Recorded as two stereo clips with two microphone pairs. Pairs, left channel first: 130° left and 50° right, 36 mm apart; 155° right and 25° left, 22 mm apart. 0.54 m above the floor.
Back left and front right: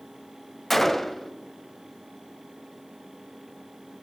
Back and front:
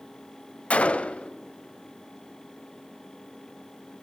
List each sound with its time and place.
0.7 s a gunshot: 145° right, 0.6 m